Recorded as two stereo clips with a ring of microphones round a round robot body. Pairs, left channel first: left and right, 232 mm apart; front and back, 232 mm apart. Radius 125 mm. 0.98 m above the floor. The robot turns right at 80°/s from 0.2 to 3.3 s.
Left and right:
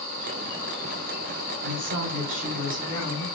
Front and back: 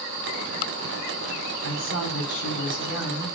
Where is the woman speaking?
90° right, 3 m; by 3.3 s 40° left, 3 m.